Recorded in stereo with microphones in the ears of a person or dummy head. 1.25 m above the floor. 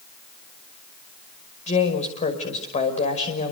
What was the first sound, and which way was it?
A woman speaking, 40° left (ahead or behind).